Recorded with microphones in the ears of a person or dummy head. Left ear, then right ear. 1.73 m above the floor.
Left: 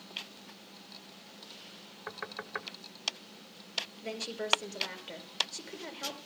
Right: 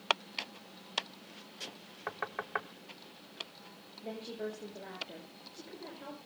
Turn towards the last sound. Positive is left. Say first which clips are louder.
# left 3 dB
turn(degrees=75)  # may be behind; listen again after turning